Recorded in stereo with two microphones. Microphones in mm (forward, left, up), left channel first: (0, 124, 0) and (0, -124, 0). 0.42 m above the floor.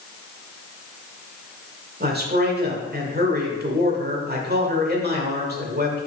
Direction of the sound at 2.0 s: 40° right (ahead or behind).